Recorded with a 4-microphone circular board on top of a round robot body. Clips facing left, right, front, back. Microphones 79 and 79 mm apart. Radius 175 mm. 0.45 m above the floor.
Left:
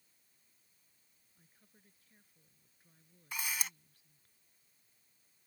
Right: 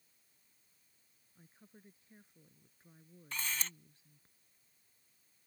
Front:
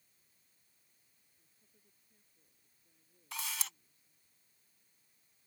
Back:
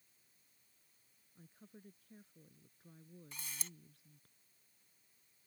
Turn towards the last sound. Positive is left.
turn(degrees=10)